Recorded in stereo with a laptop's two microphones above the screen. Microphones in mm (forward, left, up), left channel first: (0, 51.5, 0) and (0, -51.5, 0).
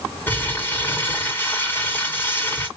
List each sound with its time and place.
0.3 s crumpling: 20° left (ahead or behind), 1.7 m